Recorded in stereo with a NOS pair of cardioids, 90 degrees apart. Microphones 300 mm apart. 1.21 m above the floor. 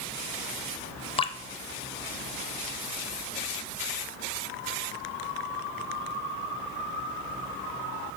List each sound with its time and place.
1.2 s dripping: 15° left, 0.7 m